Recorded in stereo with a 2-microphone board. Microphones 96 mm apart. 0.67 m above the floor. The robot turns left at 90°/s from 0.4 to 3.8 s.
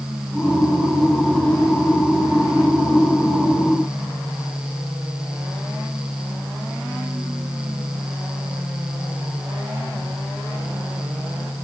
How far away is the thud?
No thud in this recording.